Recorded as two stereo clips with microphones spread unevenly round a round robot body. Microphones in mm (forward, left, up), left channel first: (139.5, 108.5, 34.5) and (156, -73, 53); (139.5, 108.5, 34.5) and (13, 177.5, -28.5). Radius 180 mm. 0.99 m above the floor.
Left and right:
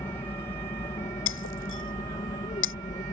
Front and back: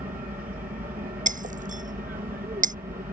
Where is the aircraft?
155° left; by 3.1 s 145° left.